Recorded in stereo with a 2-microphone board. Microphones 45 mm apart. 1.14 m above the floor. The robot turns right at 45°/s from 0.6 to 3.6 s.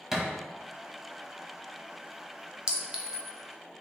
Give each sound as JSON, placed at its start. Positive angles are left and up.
{"t": 0.1, "sound": "a thud", "side_deg": -10, "distance_m": 1.1}
{"t": 2.7, "sound": "a clink", "side_deg": -30, "distance_m": 0.6}